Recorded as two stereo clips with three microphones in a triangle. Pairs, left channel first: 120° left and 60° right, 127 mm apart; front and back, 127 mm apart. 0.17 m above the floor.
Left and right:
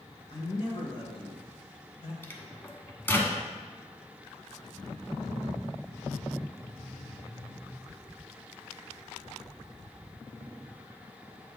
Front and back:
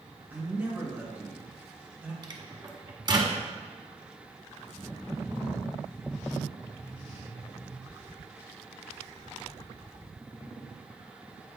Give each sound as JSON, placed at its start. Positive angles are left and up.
{"t": 0.3, "sound": "a man speaking", "azimuth_deg": 115, "distance_m": 2.0}
{"t": 2.2, "sound": "a microwave", "azimuth_deg": 180, "distance_m": 1.0}